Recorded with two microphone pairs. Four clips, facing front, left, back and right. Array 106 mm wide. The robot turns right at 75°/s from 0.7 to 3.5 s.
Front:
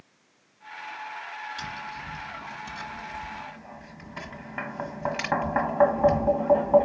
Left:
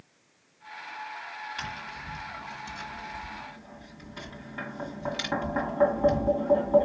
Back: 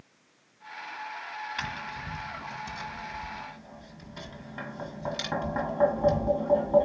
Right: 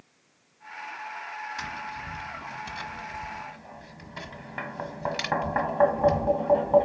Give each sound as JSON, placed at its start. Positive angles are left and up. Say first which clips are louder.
{"t": 1.6, "sound": "tapping", "louder": "right 3 dB, even", "azimuth_deg": 170, "distance_m": 1.3}